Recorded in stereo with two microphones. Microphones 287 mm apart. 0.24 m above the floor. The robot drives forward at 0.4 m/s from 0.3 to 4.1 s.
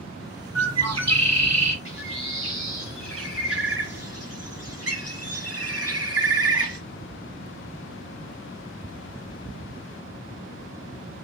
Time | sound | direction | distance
0.6 | a bird | 60° right (ahead or behind) | 1.7 m
1.9 | a bird | 45° right (ahead or behind) | 4.5 m